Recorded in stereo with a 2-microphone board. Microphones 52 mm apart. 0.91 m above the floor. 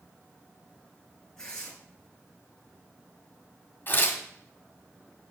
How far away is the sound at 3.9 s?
About 1.6 m.